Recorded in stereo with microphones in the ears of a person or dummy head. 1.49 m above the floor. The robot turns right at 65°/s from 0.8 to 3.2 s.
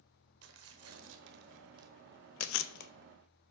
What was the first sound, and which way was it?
Tearing paper, 90° right.